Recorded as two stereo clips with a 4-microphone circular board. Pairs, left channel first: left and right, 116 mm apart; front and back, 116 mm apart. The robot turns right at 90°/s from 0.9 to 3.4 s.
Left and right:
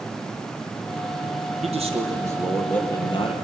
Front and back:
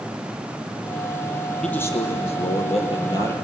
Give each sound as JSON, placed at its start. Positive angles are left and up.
{"t": 1.6, "sound": "a man speaking", "azimuth_deg": -85, "distance_m": 3.0}